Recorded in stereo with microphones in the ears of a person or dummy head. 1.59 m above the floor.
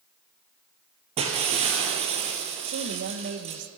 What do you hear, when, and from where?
1.2 s breaking glass: 35° right (ahead or behind), 4 m
2.6 s a woman speaking: 60° right (ahead or behind), 1.9 m